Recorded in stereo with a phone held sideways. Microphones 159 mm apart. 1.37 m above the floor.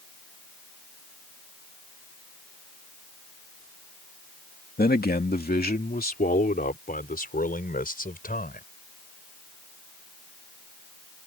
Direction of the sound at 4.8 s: 80° left.